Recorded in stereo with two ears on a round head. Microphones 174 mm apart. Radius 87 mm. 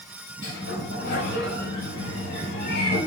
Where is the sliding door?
60° left (ahead or behind), 5.5 m.